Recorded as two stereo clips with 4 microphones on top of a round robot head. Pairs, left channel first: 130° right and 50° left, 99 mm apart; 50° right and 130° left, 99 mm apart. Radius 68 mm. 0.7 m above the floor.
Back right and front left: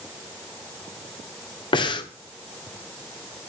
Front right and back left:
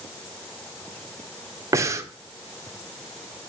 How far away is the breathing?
About 1.7 m.